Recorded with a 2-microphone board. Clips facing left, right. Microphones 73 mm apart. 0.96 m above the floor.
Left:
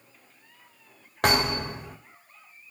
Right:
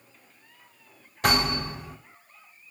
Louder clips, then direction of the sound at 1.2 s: Left 1 dB; 70° left (ahead or behind).